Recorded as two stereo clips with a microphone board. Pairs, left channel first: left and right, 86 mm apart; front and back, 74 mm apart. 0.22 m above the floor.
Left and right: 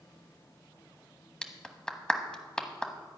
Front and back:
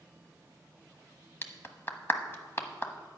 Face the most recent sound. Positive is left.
turn(degrees=20)